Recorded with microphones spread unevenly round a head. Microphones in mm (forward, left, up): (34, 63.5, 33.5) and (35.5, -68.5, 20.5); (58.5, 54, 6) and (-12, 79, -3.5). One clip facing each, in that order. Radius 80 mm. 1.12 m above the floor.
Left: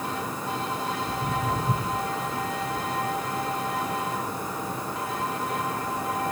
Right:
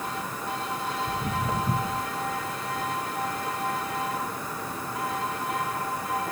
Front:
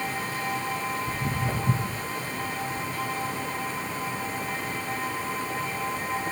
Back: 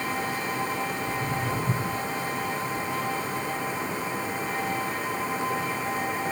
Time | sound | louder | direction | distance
1.1 | footsteps | left 2 dB, back 1 dB | 40° right | 1.3 m